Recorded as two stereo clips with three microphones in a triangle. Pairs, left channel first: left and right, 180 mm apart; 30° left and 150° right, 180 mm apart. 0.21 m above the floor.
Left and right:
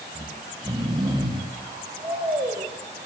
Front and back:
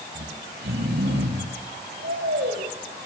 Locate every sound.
0.1 s snoring: 155° right, 6.5 m